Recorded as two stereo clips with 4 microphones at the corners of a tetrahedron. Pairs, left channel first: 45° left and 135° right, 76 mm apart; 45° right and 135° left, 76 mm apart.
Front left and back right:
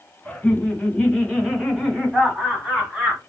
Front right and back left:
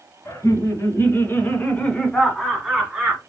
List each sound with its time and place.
0.2 s laughter: 30° right, 2.5 m; by 3.2 s straight behind, 1.7 m